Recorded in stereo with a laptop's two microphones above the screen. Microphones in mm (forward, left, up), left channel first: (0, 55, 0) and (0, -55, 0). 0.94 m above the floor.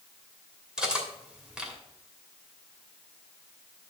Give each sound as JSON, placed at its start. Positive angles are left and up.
{"t": 0.8, "sound": "cutlery clinking", "side_deg": -10, "distance_m": 2.5}